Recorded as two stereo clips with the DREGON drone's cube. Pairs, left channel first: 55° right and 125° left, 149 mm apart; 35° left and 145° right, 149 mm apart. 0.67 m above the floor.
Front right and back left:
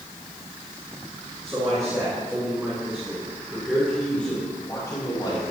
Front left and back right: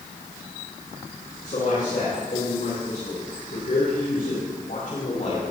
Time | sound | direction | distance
1.4 | a man speaking | 60° left | 7 m